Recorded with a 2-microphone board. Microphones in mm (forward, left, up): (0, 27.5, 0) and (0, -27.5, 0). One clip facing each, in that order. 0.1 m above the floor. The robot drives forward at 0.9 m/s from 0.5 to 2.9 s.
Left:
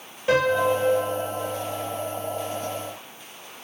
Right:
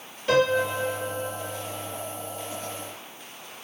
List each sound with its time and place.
0.3 s a piano: 20° left (ahead or behind), 1.6 m; by 1.6 s 15° left (ahead or behind), 2 m